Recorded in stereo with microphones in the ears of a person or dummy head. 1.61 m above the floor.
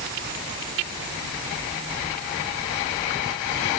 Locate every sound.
Only background noise.